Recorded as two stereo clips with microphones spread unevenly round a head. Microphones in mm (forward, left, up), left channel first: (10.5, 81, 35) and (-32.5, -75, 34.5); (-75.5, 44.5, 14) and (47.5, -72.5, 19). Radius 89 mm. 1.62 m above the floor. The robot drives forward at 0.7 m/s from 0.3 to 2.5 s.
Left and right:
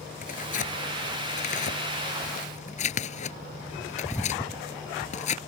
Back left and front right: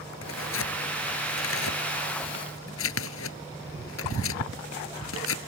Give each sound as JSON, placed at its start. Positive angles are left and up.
{"t": 0.2, "sound": "tearing paper", "azimuth_deg": 120}